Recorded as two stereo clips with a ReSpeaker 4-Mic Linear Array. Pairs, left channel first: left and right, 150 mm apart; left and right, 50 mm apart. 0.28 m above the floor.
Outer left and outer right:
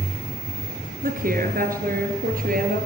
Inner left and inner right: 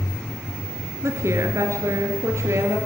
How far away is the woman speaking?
About 4.5 m.